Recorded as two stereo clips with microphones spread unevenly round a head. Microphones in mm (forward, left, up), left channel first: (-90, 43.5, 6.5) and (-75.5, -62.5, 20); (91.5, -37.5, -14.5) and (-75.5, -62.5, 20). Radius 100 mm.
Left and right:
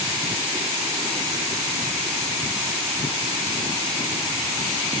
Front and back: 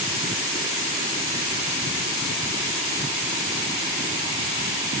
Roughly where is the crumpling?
No crumpling in this recording.